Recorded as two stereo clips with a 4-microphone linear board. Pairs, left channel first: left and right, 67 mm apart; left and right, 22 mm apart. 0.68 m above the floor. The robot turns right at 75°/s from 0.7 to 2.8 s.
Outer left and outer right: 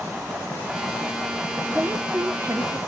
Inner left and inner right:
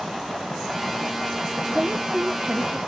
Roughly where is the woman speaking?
Behind right.